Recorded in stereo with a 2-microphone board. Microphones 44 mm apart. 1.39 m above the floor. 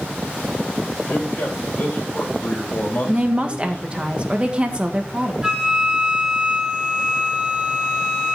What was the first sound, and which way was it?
A man speaking, 55° left (ahead or behind).